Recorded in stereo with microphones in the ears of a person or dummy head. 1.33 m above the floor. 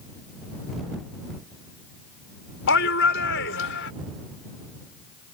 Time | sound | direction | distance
2.7 | a shout | 65° left (ahead or behind) | ?